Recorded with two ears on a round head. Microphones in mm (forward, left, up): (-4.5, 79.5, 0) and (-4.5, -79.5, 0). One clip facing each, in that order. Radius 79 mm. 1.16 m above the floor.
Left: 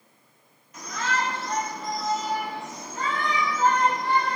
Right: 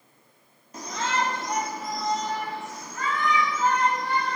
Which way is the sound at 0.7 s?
30° right (ahead or behind).